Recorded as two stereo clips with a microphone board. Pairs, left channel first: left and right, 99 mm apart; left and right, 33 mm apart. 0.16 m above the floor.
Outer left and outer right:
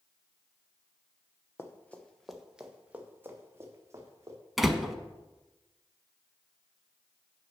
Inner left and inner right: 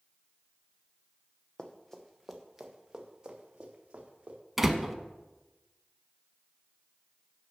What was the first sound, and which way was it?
Running footsteps, 25° left (ahead or behind).